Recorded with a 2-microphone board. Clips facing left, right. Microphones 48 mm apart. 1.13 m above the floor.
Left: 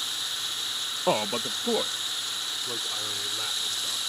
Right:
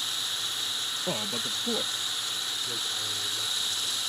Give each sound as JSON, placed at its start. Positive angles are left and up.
{"t": 1.1, "sound": "a man speaking", "side_deg": 65}